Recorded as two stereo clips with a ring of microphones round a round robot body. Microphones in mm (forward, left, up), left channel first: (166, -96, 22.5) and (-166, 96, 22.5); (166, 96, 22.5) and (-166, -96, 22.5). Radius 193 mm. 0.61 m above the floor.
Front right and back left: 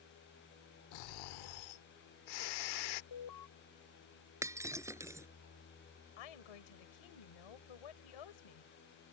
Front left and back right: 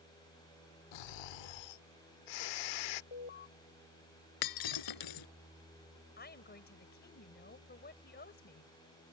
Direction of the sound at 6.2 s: 35° right.